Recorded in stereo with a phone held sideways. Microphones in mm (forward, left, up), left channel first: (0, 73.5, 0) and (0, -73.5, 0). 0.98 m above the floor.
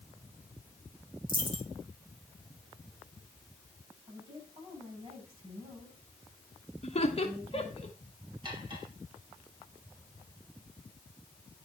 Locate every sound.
1.3 s a dropped coin: 30° right (ahead or behind), 2.5 m
4.1 s a woman speaking: 35° right (ahead or behind), 9 m
6.8 s laughter: 45° left (ahead or behind), 1.6 m
8.4 s cutlery clinking: 35° right (ahead or behind), 4 m